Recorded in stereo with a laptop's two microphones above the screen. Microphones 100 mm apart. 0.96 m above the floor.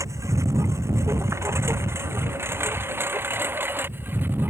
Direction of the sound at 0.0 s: 30° right (ahead or behind).